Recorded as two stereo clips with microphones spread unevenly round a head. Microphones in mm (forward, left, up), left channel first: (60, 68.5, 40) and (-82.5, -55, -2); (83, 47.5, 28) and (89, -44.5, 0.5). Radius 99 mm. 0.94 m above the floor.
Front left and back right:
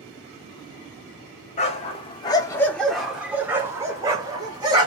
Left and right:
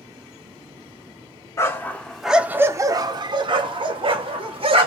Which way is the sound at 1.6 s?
70° left.